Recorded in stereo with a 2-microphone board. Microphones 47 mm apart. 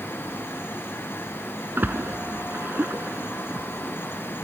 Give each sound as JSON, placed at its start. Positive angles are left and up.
{"t": 1.8, "sound": "a splash", "side_deg": -45}